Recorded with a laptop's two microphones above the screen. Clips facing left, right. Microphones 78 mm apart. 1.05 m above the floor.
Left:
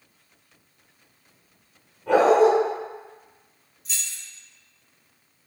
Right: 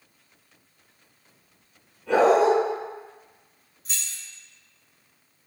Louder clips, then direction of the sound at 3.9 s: Left 1 dB; 50° right (ahead or behind).